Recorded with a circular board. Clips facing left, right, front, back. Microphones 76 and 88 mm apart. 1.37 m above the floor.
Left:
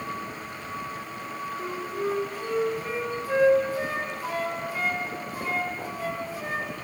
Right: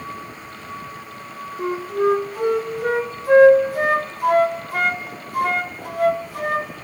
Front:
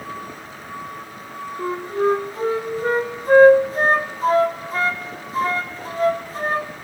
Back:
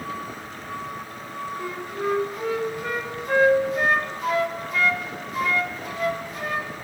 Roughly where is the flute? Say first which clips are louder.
Right 12 dB, front 10 dB; ahead right.